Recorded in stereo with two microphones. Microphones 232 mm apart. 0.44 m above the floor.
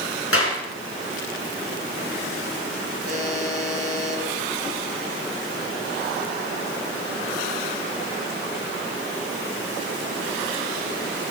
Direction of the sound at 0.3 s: 65° left (ahead or behind).